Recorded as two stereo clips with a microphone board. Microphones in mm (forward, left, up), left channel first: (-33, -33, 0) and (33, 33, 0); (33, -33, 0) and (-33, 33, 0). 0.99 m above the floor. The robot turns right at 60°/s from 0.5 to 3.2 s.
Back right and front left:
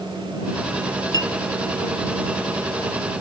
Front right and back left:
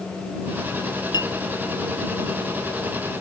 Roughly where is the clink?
Ahead.